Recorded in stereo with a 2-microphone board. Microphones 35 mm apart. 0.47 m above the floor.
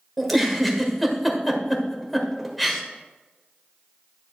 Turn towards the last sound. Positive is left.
turn(degrees=5)  # may be behind; listen again after turning